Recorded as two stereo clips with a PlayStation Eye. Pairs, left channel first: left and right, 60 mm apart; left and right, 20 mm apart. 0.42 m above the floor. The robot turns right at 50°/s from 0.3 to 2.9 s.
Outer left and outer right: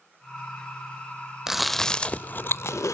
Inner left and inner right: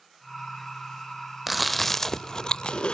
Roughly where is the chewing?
Centre.